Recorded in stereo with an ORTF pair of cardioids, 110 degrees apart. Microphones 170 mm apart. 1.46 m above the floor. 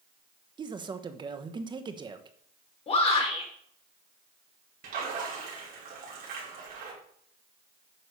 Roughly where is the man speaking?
Ahead right.